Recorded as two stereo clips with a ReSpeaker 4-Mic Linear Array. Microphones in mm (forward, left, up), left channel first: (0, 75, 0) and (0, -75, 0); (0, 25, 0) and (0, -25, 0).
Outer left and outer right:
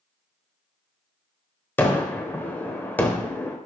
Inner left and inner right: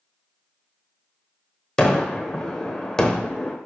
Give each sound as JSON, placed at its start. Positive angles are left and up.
{"t": 1.8, "sound": "a gunshot", "side_deg": 15, "distance_m": 0.9}